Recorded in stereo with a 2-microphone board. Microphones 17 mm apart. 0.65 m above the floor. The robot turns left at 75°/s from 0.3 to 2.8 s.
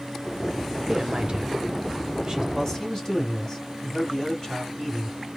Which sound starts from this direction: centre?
A man speaking, at 2.5 s.